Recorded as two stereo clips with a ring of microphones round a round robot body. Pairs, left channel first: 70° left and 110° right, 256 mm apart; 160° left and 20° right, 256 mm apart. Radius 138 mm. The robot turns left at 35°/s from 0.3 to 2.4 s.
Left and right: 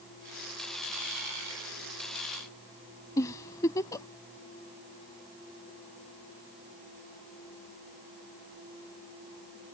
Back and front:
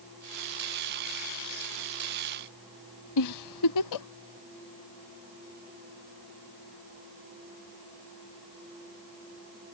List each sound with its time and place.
3.2 s a giggle: 145° left